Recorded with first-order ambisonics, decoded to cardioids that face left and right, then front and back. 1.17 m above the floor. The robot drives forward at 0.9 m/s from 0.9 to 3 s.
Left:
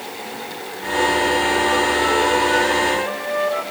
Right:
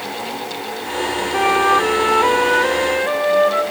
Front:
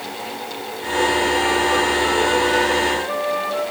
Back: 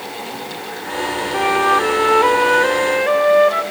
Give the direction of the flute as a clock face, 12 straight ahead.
4 o'clock.